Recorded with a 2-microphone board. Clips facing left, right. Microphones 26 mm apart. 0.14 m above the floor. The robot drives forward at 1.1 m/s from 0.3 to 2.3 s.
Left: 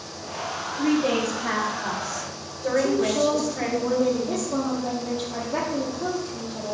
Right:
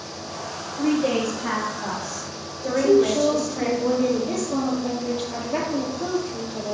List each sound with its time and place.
0.8 s a woman speaking: 25° right (ahead or behind), 4 m; by 3.7 s 20° right (ahead or behind), 5.5 m
2.7 s a woman speaking: 65° right (ahead or behind), 4 m